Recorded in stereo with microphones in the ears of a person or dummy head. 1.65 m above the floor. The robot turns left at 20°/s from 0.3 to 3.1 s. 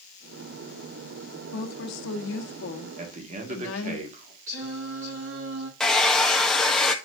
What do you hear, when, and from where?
1.5 s a woman speaking: 120° left, 1.1 m; by 4.0 s 90° left, 1.1 m
3.0 s a man speaking: 45° right (ahead or behind), 1.7 m
4.5 s singing: 70° right (ahead or behind), 2.5 m
5.8 s a hair dryer: 5° left (ahead or behind), 0.8 m